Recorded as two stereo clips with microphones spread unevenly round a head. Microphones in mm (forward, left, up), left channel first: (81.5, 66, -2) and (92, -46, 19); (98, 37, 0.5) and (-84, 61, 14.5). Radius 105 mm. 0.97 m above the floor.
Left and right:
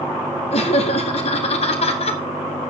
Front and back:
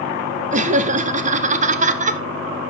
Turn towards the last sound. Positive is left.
turn(degrees=125)